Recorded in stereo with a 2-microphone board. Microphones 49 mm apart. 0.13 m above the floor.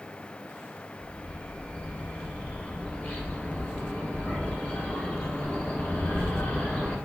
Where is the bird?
25° left (ahead or behind), 0.7 m.